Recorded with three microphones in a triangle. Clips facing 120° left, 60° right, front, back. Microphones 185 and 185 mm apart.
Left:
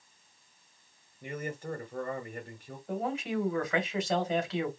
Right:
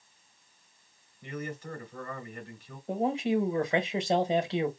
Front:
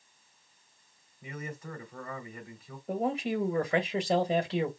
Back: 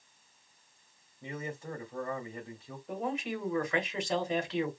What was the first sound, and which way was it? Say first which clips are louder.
A man speaking: left 1 dB, back 2 dB; 130° left.